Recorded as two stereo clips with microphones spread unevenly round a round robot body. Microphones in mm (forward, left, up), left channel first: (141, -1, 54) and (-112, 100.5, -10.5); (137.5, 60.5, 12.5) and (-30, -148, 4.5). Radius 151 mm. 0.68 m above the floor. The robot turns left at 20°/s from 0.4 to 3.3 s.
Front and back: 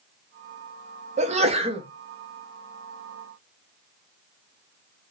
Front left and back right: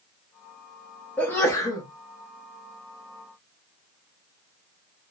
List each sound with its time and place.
1.2 s a sneeze: 135° left, 0.6 m; by 1.9 s 125° left, 0.6 m